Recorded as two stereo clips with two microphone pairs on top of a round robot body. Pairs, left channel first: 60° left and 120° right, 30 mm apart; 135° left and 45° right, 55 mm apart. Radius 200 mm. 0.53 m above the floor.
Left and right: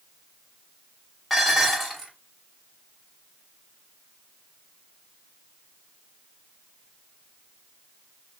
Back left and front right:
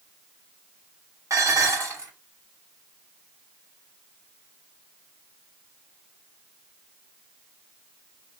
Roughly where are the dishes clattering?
Ahead right.